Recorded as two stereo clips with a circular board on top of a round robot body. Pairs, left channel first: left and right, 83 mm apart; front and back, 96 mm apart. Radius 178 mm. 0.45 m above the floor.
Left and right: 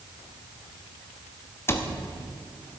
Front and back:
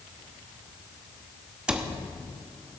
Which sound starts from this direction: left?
A cupboard door, at 1.7 s.